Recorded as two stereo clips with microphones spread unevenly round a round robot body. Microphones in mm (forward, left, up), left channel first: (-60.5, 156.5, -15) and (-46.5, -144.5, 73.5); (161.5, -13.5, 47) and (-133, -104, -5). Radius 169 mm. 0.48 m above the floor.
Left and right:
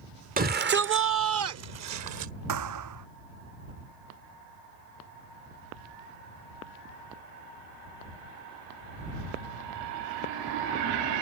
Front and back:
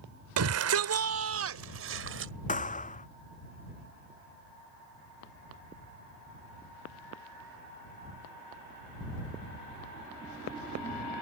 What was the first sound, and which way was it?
A shout, 155° right.